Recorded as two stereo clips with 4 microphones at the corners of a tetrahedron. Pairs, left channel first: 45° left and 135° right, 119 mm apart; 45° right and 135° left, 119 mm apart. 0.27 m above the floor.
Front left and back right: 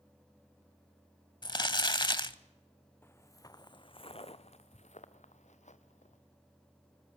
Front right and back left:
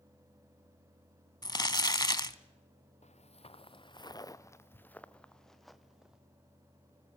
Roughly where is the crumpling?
Ahead.